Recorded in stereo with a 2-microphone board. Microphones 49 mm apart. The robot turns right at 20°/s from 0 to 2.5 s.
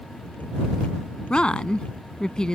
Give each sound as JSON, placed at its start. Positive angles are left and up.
{"t": 1.3, "sound": "a woman speaking", "side_deg": 20}